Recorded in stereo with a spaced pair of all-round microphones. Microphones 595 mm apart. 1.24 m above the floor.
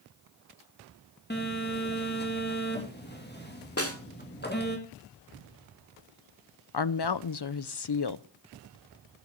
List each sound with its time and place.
1.3 s a phone buzzing: 15° left (ahead or behind), 2 m
3.8 s a snare drum: 25° left (ahead or behind), 1.4 m
6.7 s a woman speaking: 45° left (ahead or behind), 0.5 m